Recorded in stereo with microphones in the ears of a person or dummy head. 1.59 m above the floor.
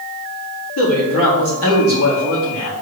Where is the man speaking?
85° left, 4 m.